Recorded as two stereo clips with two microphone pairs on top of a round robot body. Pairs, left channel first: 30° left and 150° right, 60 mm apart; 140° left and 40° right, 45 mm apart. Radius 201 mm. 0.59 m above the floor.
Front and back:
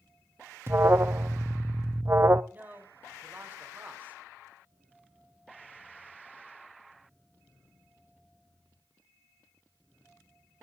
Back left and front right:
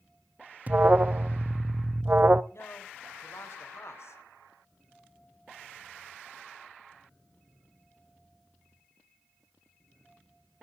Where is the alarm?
95° right, 0.7 m.